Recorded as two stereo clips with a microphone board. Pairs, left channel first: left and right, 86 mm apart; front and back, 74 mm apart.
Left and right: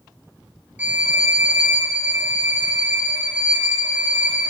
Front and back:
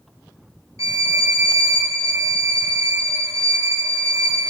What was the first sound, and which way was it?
A violin, 155° right.